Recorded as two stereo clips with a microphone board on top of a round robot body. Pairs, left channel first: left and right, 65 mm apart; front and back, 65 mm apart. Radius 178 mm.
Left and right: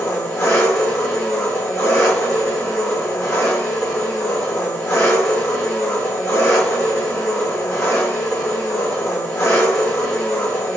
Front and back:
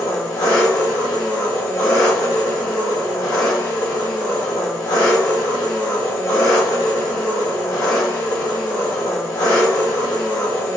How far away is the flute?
I don't hear a flute.